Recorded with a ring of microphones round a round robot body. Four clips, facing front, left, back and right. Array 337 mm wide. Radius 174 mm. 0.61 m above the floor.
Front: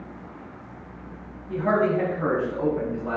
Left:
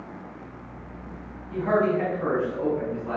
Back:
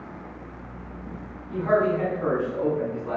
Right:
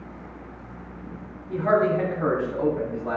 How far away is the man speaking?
About 3.5 m.